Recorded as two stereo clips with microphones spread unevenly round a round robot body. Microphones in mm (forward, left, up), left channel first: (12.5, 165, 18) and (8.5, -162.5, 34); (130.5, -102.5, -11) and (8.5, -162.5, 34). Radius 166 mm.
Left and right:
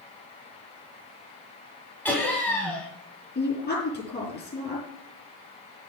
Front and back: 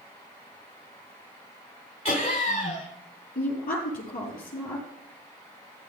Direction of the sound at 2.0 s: 5° left.